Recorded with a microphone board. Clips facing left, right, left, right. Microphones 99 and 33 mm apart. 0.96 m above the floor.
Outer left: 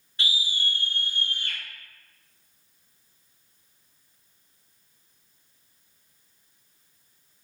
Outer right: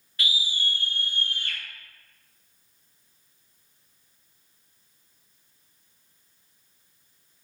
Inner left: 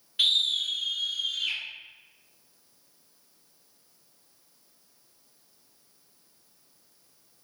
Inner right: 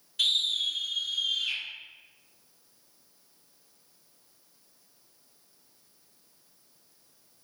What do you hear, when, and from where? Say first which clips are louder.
0.2 s a scream: even, inner left 2 dB; 25° left (ahead or behind), 0.9 m; by 1.6 s 55° left (ahead or behind), 2 m